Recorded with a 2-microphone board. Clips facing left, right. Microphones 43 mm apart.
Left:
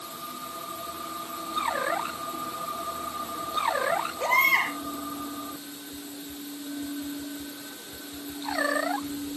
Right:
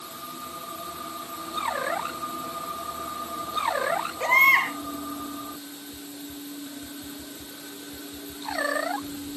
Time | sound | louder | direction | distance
4.2 | a baby crying | right 4 dB | 50° right (ahead or behind) | 6.5 m